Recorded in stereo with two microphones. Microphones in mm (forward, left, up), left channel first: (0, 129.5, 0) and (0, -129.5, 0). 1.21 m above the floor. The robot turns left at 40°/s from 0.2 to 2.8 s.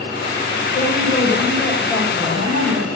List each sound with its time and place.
0.7 s a woman speaking: 45° left, 4.5 m; by 2.9 s 40° right, 4.5 m